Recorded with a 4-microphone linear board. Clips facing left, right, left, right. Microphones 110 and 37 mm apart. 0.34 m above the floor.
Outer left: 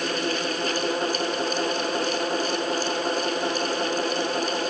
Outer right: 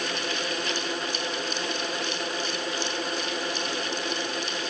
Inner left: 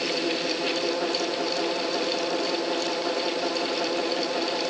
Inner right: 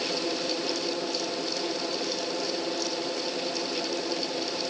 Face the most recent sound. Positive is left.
No sound to turn to.